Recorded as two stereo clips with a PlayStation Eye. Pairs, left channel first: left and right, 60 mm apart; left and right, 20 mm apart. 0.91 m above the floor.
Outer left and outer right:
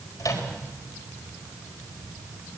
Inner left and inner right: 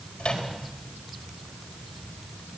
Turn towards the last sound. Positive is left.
turn(degrees=70)  # may be behind; listen again after turning